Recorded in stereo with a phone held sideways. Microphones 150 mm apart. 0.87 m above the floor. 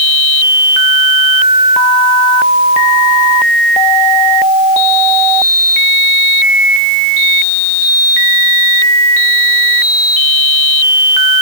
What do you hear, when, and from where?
Only background noise.